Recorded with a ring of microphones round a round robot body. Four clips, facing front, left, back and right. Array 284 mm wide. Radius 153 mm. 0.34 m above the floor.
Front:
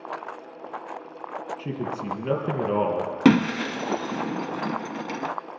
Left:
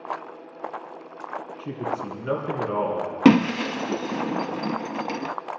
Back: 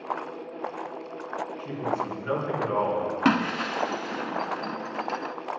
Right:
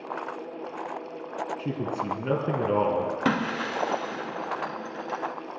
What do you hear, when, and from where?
1.6 s a man speaking: 45° right, 4.5 m
3.2 s breaking glass: 55° left, 0.5 m